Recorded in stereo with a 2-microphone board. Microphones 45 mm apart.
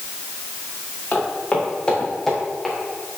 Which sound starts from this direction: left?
Footsteps, at 1.1 s.